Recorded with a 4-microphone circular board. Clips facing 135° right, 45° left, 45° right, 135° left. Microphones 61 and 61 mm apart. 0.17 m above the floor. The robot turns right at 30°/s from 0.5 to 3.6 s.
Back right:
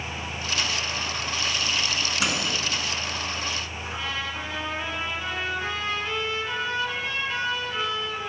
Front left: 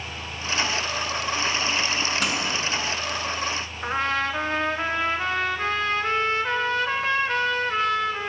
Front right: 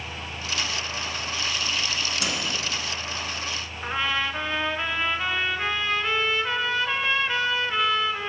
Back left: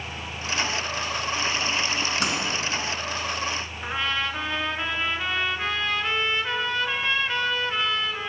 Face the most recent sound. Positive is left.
turn(degrees=40)